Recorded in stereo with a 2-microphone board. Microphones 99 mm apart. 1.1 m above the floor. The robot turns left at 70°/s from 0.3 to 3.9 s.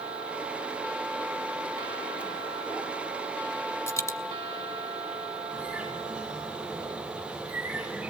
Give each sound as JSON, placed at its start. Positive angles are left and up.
{"t": 3.9, "sound": "a dropped coin", "side_deg": 25, "distance_m": 1.2}
{"t": 5.5, "sound": "a bird", "side_deg": -10, "distance_m": 9.5}